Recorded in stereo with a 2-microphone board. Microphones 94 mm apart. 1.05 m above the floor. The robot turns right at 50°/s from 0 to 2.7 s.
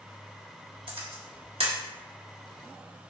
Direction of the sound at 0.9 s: 60° right (ahead or behind).